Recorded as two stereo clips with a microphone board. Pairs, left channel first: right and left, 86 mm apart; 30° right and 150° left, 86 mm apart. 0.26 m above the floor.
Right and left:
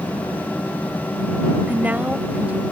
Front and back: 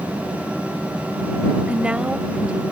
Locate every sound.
1.7 s a woman speaking: 100° left